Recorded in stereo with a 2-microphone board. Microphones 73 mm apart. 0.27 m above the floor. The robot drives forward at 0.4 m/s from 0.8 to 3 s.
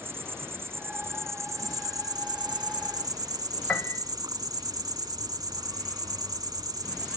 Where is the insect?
35° right (ahead or behind), 0.8 m; by 7.2 s 70° right (ahead or behind), 0.5 m.